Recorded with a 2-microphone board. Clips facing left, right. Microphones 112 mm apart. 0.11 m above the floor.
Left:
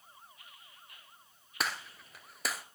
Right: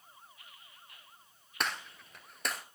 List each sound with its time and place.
1.6 s a gunshot: 5° left (ahead or behind), 1.0 m